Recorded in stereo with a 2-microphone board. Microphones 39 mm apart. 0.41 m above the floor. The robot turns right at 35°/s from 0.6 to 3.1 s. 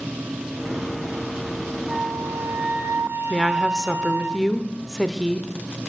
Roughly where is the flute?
Behind right.